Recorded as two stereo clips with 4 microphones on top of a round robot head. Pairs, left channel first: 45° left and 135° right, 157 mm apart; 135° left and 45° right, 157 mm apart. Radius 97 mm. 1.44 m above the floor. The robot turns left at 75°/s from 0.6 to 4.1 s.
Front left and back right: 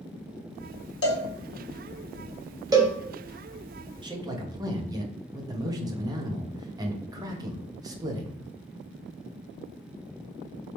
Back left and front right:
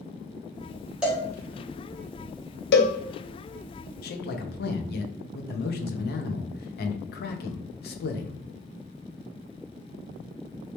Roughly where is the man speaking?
Behind.